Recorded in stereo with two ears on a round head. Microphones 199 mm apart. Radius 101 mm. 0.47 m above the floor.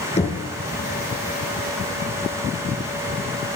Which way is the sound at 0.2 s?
30° left (ahead or behind).